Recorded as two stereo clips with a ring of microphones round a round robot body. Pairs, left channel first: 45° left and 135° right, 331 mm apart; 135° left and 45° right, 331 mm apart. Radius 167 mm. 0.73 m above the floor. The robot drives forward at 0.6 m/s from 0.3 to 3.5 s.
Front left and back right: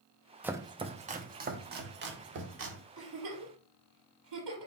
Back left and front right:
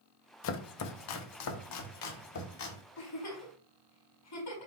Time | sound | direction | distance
0.4 | chopping | 140° left | 0.7 m
3.0 | a giggle | 175° left | 4 m